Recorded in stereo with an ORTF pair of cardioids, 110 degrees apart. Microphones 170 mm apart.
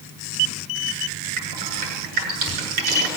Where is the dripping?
70° right, 6.5 m.